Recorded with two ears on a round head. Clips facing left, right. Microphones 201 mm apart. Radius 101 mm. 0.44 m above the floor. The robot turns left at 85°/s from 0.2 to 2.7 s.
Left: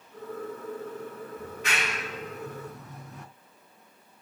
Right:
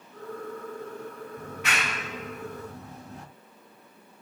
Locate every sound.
1.4 s a clap: 35° right (ahead or behind), 4.5 m; by 3.2 s 30° right (ahead or behind), 4.5 m